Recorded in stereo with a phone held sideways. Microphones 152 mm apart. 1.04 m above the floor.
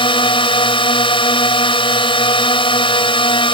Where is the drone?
35° left (ahead or behind).